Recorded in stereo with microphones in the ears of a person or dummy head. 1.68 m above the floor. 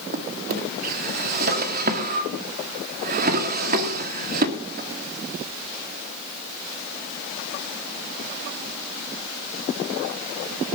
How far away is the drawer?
About 1.9 m.